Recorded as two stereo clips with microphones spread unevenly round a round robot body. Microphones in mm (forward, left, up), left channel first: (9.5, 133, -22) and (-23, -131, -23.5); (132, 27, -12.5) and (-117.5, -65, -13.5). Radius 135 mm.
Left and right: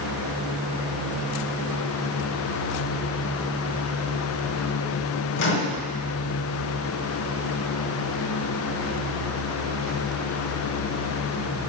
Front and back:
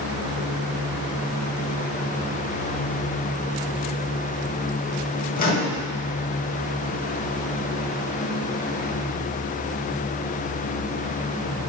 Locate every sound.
5.4 s a microwave: 65° left, 1.2 m